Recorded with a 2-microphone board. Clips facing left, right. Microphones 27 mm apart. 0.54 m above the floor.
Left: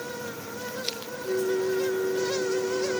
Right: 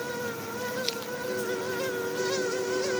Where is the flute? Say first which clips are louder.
Left 6 dB; 85° left.